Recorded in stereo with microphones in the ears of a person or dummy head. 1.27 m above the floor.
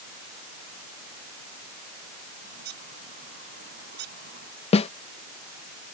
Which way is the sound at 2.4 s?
50° right (ahead or behind).